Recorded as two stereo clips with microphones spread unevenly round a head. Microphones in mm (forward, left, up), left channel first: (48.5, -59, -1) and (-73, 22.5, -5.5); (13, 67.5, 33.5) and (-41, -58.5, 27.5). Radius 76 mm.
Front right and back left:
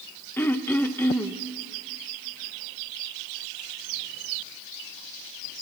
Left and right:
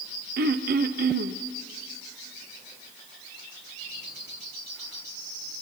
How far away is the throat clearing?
About 0.7 m.